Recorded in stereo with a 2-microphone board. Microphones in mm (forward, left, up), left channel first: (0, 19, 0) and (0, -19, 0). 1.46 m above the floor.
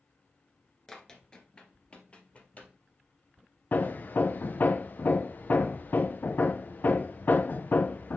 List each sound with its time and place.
0.9 s running footsteps: 15° left (ahead or behind), 1.4 m; by 2.7 s 40° left (ahead or behind), 2.5 m
3.7 s hammering: 55° left (ahead or behind), 0.5 m